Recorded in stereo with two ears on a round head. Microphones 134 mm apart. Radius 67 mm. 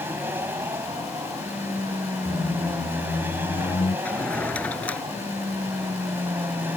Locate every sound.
0.0 s an aircraft: 15° right (ahead or behind)
2.2 s a squeak: 30° left (ahead or behind)
4.0 s a drawer: 10° left (ahead or behind)